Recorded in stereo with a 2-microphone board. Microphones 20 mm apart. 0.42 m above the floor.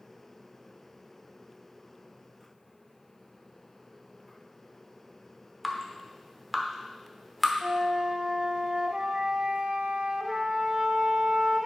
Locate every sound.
5.6 s dripping: 5° left (ahead or behind), 0.9 m
7.6 s a flute: 55° right (ahead or behind), 1.0 m